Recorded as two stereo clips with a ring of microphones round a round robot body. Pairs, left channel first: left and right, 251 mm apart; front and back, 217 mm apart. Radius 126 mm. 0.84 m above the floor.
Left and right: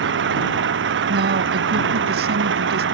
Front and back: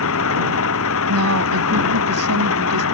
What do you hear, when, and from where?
0.0 s an engine running: 40° right
1.1 s a woman speaking: 145° right